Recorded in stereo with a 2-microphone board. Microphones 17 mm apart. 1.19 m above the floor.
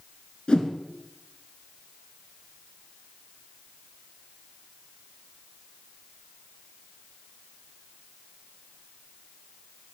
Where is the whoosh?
60° left (ahead or behind), 2.0 m.